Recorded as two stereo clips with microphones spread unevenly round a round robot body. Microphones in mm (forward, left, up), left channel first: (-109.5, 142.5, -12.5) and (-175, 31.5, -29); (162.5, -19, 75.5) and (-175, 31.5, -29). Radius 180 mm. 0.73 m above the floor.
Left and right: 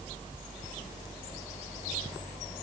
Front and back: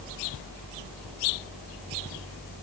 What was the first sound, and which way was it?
Only background noise.